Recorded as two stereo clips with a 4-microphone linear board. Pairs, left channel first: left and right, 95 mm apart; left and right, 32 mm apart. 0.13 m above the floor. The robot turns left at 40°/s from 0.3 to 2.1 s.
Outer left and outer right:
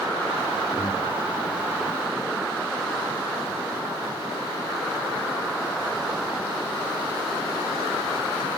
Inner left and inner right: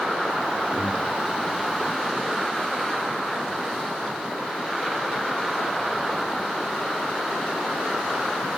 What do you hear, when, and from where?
0.7 s breathing: 25° right (ahead or behind), 2.5 m; by 1.1 s 45° right (ahead or behind), 2.5 m